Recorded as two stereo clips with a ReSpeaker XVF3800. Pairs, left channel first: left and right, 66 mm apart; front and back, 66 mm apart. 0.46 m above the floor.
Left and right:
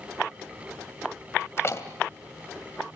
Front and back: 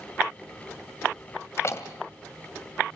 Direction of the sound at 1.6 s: 40° left.